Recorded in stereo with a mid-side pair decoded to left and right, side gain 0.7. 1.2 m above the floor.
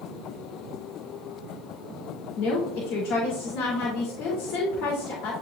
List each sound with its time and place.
2.4 s a woman speaking: 60° left, 3 m